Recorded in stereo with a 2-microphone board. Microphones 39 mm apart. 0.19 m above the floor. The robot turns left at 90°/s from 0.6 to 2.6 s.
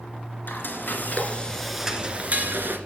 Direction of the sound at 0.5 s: 105° left.